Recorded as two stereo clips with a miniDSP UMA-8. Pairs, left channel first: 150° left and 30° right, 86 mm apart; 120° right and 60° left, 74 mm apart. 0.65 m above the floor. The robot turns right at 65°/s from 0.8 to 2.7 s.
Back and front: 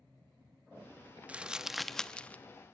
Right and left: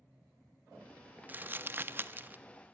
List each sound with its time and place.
1.3 s crumpling: 25° left, 0.6 m; by 2.4 s 100° left, 0.6 m